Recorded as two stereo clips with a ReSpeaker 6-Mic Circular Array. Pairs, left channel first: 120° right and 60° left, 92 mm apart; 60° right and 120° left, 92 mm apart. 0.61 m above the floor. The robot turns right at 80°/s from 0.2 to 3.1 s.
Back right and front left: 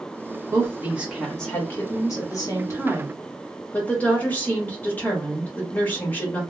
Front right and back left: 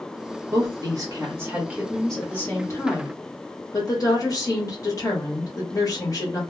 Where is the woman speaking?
90° left, 1.4 m; by 6.4 s 60° right, 1.4 m.